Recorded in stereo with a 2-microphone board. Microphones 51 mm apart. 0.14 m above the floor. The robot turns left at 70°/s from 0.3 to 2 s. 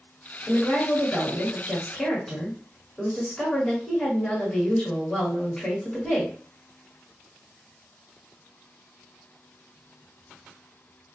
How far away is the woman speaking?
About 1.5 m.